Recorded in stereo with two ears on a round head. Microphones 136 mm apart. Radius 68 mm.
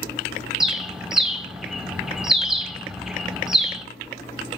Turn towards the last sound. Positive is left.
turn(degrees=0)  # may be behind; listen again after turning